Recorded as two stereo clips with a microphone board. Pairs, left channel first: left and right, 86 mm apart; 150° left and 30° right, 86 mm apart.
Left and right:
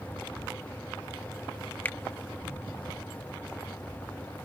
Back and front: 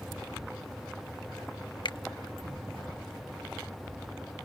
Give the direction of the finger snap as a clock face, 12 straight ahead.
7 o'clock.